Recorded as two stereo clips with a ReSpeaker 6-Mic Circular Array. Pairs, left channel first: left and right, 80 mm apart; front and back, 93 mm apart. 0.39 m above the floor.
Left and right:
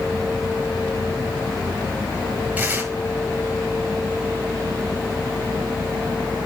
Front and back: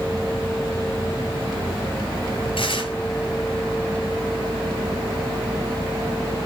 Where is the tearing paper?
20° right, 9 m.